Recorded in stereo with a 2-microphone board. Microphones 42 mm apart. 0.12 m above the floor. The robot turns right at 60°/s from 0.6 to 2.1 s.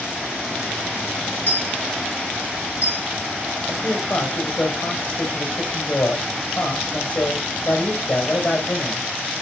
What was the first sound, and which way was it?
A dropped coin, 40° left (ahead or behind).